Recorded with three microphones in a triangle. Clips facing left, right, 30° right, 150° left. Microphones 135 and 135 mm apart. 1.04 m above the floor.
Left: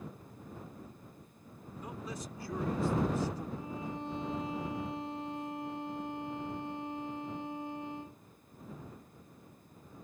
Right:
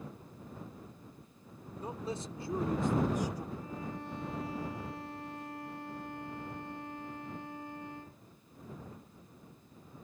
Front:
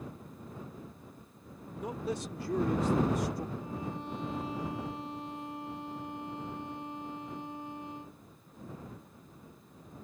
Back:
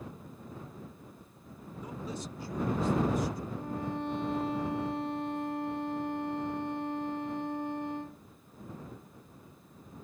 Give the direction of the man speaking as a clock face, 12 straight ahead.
1 o'clock.